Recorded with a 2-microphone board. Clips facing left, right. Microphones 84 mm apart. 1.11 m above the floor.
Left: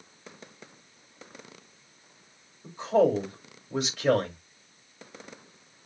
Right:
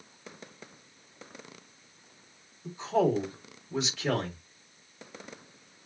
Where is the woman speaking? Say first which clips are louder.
Left 4 dB; 50° left (ahead or behind), 3 m.